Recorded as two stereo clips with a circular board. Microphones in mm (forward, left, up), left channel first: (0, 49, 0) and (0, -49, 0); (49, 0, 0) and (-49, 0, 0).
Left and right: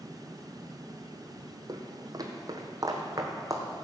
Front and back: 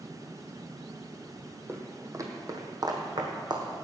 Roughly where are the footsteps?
Behind right.